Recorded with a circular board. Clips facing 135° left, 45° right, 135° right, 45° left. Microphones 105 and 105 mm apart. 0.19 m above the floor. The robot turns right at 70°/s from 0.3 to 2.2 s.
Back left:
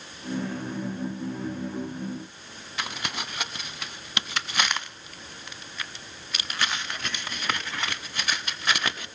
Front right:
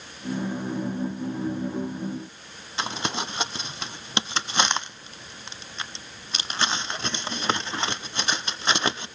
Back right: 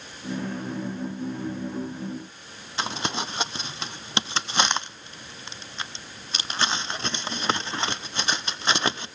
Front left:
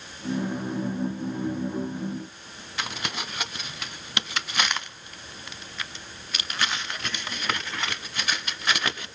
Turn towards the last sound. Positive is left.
turn(degrees=-90)